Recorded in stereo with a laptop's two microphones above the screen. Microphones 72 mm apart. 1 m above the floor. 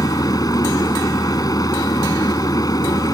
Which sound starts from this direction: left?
A machine running, at 0.0 s.